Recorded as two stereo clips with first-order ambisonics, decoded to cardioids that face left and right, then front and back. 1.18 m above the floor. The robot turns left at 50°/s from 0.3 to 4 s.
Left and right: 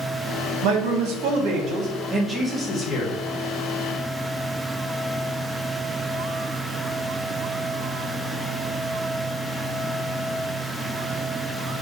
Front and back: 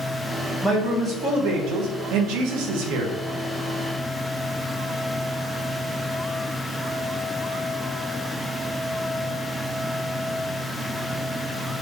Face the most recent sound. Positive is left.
turn(degrees=100)